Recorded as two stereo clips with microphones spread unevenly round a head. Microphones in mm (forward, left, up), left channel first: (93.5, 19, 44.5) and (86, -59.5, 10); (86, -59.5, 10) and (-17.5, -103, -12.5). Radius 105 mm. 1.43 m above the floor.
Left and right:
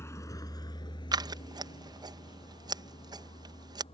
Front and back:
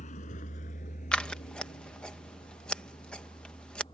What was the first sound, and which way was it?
A vehicle, 35° left.